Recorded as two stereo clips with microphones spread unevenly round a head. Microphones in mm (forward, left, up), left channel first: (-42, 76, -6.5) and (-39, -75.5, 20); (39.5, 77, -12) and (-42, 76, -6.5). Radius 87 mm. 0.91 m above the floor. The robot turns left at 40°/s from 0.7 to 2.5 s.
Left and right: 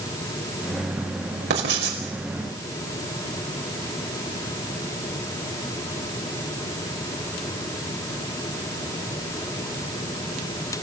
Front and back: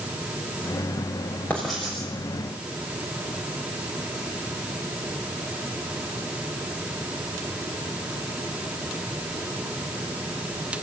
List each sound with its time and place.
1.5 s writing: 80° right, 5.5 m; by 2.0 s 100° right, 5.5 m